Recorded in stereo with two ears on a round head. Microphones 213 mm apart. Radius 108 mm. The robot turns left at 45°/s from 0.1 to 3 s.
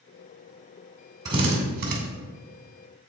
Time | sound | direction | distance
1.2 | a drill | 15° right (ahead or behind) | 2.5 m